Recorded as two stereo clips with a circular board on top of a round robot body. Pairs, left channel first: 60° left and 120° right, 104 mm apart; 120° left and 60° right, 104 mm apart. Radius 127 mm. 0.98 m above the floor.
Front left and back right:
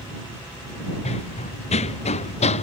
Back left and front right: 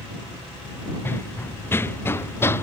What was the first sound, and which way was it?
Running footsteps, 50° left.